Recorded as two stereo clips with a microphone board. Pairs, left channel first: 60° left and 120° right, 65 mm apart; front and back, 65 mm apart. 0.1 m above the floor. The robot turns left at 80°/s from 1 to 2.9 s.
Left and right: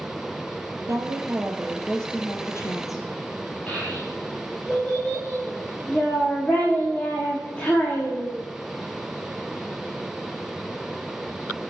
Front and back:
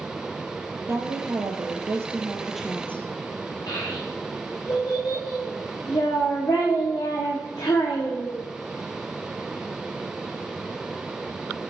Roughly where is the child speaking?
Ahead.